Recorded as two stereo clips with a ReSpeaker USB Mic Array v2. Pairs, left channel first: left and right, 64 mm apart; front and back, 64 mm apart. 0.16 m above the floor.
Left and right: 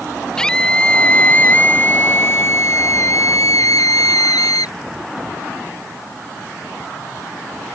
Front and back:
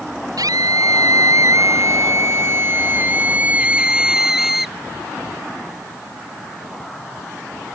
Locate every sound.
0.4 s a scream: 170° left; by 4.8 s 95° left